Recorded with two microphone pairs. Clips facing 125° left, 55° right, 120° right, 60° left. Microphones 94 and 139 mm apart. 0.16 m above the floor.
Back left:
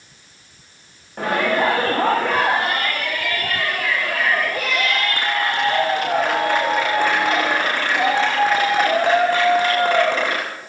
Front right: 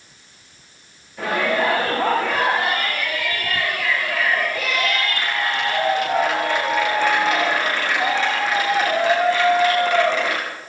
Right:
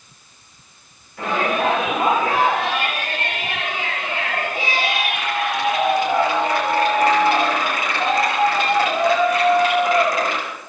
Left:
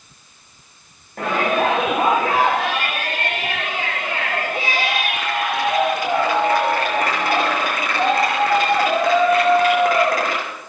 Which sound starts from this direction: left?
A shout, at 1.2 s.